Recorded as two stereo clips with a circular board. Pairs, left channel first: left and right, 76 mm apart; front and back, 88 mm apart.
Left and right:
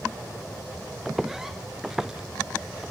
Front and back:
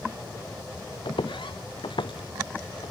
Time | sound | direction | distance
1.1 | footsteps | 5° right | ?